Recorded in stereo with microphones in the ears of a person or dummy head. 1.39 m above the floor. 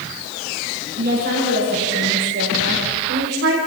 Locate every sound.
1.0 s a woman speaking: 55° right (ahead or behind), 6.5 m; by 3.6 s 65° right (ahead or behind), 3.5 m